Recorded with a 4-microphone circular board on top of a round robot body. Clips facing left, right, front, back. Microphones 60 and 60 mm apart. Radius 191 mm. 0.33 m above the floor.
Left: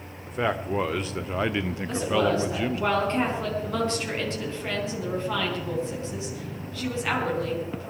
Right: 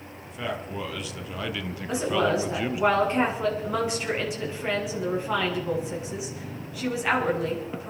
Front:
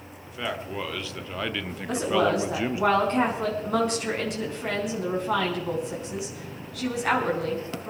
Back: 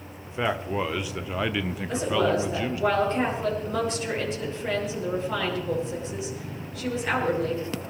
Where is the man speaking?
120° left, 1.6 m; by 2.9 s 30° right, 1.1 m.